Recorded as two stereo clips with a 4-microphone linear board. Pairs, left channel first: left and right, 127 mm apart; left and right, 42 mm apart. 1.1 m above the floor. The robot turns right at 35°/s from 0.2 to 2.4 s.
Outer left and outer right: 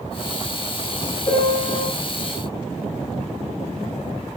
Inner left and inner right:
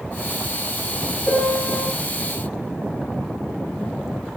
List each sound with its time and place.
1.3 s a piano: 30° left (ahead or behind), 0.6 m; by 1.8 s 25° left (ahead or behind), 0.6 m